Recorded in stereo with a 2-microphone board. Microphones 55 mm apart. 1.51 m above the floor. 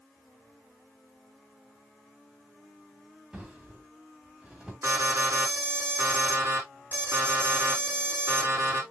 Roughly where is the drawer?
Centre.